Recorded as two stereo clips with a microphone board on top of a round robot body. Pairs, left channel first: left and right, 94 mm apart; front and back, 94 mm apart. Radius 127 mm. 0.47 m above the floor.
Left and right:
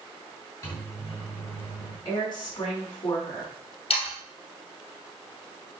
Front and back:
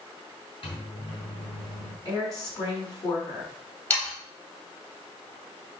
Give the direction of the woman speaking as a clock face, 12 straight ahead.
10 o'clock.